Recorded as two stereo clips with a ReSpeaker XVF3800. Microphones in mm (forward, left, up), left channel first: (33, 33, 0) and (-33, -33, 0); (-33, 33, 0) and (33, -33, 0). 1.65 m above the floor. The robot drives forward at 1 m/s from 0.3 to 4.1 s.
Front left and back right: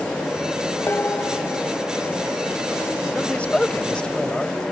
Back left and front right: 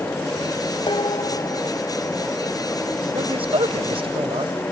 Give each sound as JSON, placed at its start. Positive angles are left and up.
{"t": 0.9, "sound": "dishes clattering", "azimuth_deg": 110}
{"t": 3.1, "sound": "a man speaking", "azimuth_deg": -30}